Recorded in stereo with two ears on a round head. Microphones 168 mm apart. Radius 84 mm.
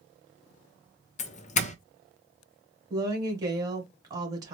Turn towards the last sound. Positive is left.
turn(degrees=-20)  # may be behind; listen again after turning